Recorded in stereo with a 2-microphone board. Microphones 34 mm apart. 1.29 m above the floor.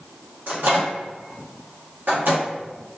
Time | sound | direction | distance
0.5 | a microwave | 70° right (ahead or behind) | 1.0 m